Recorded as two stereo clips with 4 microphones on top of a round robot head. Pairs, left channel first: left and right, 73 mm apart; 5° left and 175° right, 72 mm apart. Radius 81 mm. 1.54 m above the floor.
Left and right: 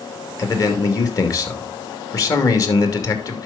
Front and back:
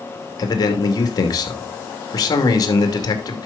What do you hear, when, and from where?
0.4 s a man speaking: 45° left, 2.5 m